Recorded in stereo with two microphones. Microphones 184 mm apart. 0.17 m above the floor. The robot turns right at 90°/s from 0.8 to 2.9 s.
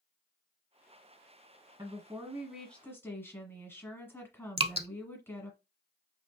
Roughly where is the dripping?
Right.